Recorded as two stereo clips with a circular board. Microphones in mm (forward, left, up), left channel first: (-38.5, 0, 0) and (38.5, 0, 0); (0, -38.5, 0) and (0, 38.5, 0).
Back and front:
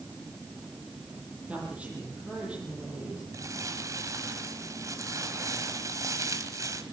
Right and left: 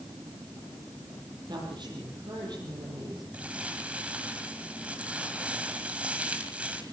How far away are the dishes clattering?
No dishes clattering in this recording.